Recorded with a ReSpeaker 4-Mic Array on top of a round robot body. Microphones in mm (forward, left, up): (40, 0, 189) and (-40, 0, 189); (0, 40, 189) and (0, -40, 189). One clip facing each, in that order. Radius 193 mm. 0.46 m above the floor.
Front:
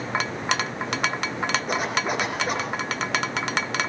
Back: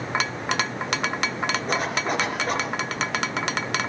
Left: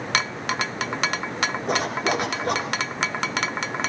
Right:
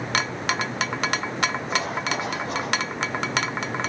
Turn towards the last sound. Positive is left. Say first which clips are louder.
# even, left 3 dB
turn(degrees=85)